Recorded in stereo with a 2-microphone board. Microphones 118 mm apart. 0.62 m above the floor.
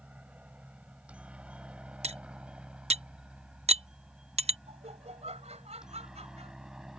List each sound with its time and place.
0.0 s a helicopter: 10° right (ahead or behind); by 7.0 s 5° right (ahead or behind)
2.0 s cutlery clinking: 65° right (ahead or behind)
4.7 s laughter: 70° right (ahead or behind)